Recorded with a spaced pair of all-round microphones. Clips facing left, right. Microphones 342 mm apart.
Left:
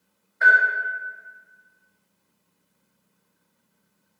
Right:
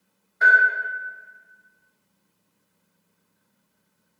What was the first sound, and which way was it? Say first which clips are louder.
A bell: even; 45° right (ahead or behind).